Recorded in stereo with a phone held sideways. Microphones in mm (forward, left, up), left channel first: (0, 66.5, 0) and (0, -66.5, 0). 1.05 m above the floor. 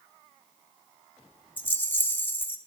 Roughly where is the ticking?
No ticking in this recording.